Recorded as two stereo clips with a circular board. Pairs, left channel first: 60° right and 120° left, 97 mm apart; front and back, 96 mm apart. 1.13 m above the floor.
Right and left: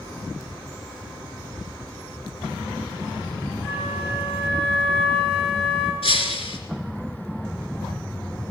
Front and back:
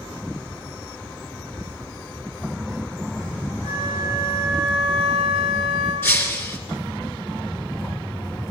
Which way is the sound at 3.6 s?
30° left.